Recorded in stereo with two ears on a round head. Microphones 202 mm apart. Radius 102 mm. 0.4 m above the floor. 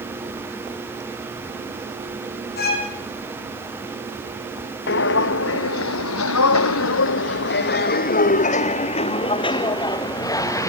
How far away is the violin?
About 4 m.